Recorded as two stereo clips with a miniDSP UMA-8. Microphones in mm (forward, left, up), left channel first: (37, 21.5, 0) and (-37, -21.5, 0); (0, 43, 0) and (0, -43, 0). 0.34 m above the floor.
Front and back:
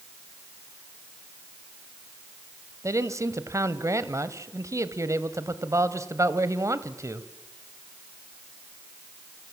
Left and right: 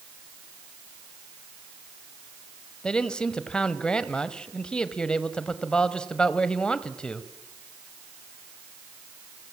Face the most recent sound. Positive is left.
turn(degrees=170)